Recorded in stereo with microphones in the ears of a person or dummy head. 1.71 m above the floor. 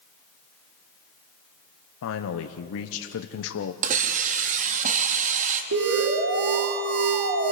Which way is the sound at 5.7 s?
65° right (ahead or behind).